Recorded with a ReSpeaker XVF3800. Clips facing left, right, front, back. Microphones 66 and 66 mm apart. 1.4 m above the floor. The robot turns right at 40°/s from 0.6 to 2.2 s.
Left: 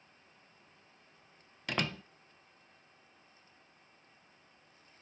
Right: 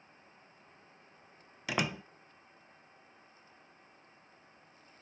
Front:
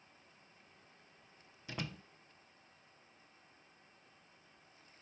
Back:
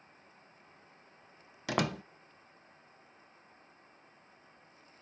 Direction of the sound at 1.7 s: 175° right.